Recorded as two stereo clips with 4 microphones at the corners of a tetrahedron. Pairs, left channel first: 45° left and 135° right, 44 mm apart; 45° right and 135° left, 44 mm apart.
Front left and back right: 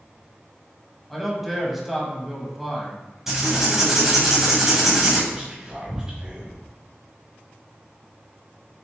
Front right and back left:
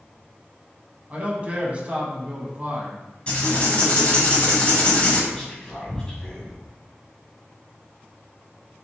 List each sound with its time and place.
1.1 s a man speaking: 140° left, 1.1 m
3.3 s writing: 70° right, 1.6 m
5.3 s whispering: 95° right, 1.0 m